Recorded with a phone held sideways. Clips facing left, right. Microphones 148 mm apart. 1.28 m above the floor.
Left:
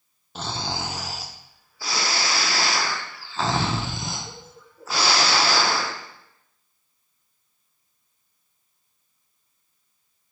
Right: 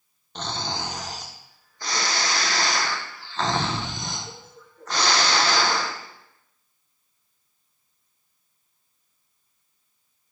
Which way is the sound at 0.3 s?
5° left (ahead or behind).